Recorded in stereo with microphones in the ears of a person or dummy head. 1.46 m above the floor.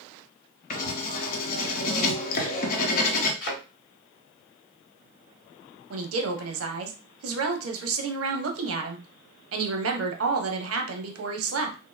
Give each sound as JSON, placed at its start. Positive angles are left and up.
{"t": 0.7, "sound": "writing", "side_deg": 45, "distance_m": 0.7}
{"t": 3.4, "sound": "a thud", "side_deg": 60, "distance_m": 1.8}
{"t": 5.9, "sound": "a woman speaking", "side_deg": -75, "distance_m": 0.7}